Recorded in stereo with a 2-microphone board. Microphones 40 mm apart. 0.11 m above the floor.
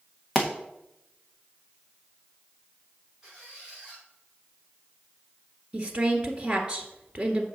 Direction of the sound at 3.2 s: 15° right (ahead or behind).